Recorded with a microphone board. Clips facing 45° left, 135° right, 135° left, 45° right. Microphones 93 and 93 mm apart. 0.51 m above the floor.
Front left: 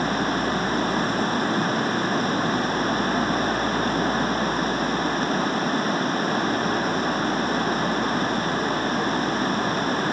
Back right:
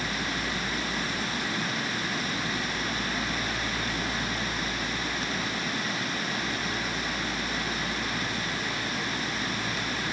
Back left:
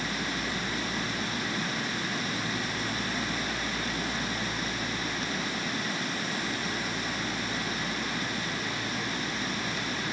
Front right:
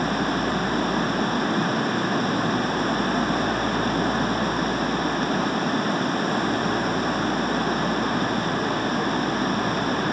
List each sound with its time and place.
0.0 s running water: straight ahead